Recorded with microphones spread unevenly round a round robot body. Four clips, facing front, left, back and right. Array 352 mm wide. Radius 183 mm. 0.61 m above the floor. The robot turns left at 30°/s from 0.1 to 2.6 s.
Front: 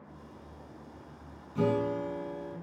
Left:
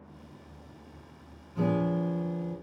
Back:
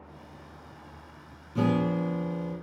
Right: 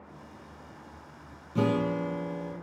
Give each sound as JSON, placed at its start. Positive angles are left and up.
{"t": 1.6, "sound": "a guitar", "azimuth_deg": -110, "distance_m": 4.5}